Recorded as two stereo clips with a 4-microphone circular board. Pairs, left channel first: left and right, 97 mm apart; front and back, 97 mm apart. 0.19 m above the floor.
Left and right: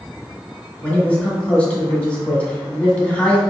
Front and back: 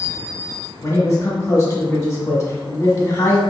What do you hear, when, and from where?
0.8 s a man speaking: 25° left, 1.2 m